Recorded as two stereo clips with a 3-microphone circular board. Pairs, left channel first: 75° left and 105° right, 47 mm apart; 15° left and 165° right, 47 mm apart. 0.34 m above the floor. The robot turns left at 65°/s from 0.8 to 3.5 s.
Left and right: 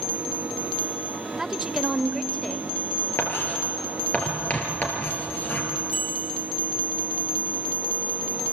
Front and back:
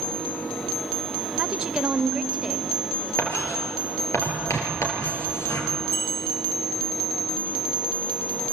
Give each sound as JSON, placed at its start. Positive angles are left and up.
{"t": 1.4, "sound": "a woman speaking", "azimuth_deg": -155, "distance_m": 0.8}
{"t": 3.2, "sound": "writing", "azimuth_deg": 40, "distance_m": 4.0}
{"t": 5.9, "sound": "a bicycle bell", "azimuth_deg": -30, "distance_m": 6.0}